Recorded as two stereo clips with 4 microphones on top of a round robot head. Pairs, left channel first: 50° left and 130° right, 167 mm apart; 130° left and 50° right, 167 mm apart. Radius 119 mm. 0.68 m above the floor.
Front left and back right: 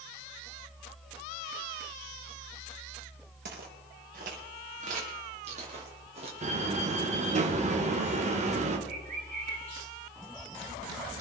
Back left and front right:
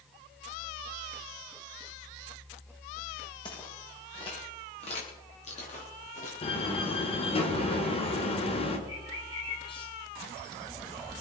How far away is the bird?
About 4 m.